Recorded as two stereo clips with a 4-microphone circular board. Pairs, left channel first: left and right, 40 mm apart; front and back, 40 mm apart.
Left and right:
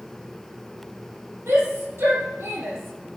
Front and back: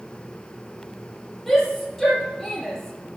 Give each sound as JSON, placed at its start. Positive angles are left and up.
{"t": 1.5, "sound": "a shout", "azimuth_deg": -85, "distance_m": 6.0}